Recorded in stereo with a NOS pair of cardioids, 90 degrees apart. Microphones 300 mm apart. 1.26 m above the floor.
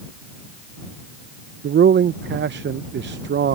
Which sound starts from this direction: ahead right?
A man speaking, at 1.6 s.